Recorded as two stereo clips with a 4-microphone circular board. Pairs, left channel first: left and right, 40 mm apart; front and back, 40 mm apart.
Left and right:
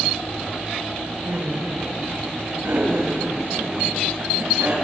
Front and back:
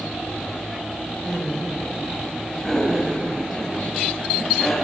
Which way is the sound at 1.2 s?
75° right.